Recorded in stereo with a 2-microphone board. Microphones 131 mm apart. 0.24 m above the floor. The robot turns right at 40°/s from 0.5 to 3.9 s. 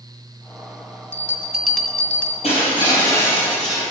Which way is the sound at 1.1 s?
25° right.